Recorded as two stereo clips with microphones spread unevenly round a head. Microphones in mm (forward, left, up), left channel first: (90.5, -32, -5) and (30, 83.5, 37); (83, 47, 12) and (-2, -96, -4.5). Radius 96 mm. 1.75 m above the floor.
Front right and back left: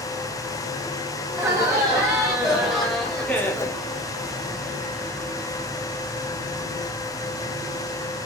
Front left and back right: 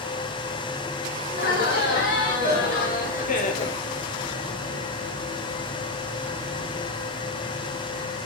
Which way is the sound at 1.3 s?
40° left.